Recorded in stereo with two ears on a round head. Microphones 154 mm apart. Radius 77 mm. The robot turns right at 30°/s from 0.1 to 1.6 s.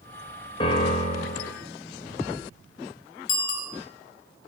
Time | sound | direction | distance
0.6 | a piano | 30° left (ahead or behind) | 1.6 m
3.3 | a bicycle bell | 75° left (ahead or behind) | 3 m